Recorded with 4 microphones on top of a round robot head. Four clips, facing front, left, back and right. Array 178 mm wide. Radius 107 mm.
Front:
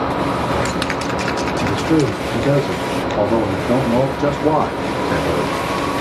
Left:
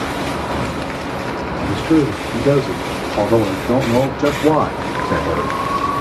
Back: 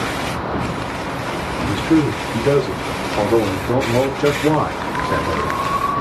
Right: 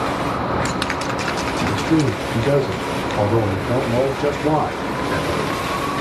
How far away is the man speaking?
About 3 m.